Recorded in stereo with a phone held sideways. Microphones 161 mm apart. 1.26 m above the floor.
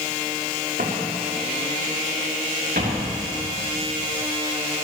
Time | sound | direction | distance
0.8 | footsteps | 65° right (ahead or behind) | 5 m